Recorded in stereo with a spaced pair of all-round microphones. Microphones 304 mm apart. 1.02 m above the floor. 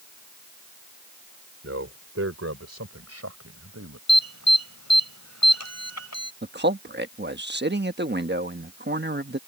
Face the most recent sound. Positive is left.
turn(degrees=-35)  # may be behind; listen again after turning